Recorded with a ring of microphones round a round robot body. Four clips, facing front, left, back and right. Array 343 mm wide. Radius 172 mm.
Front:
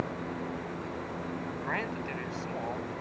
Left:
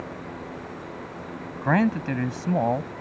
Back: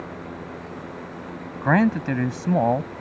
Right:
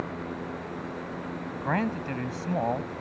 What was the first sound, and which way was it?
A man speaking, 155° left.